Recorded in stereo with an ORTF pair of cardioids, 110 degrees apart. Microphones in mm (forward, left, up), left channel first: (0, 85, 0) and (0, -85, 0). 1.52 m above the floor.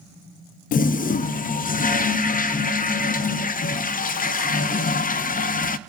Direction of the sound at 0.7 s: 55° left.